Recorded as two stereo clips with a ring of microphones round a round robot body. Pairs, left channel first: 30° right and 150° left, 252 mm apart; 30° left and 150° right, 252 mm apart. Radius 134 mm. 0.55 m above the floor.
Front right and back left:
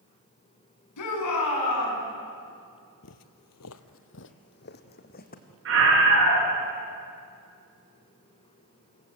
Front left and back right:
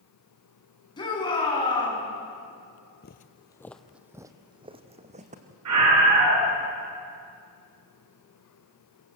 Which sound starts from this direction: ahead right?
A shout, at 1.0 s.